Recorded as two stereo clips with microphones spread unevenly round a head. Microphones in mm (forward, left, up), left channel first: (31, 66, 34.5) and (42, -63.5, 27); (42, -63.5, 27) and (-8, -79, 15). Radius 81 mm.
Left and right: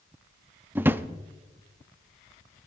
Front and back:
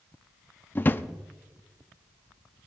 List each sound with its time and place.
0.8 s a drawer: 10° right, 0.5 m